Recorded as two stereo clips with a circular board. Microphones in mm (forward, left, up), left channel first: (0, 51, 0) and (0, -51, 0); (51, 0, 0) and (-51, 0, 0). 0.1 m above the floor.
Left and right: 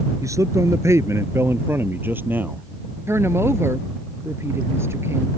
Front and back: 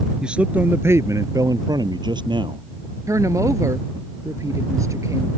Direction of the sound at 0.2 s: 105° right.